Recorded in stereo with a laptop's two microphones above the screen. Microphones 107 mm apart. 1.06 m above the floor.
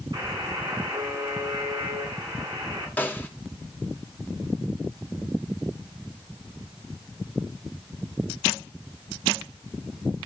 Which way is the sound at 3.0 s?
15° left (ahead or behind).